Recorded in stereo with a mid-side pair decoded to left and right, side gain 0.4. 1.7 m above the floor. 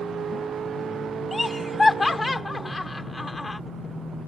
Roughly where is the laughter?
Ahead left.